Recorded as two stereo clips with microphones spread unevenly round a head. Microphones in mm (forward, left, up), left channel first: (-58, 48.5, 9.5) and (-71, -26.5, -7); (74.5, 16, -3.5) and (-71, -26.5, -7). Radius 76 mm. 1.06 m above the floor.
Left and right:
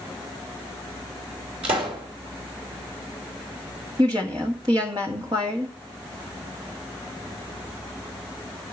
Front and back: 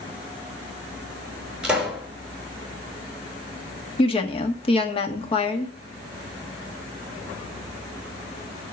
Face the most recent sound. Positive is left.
turn(degrees=-40)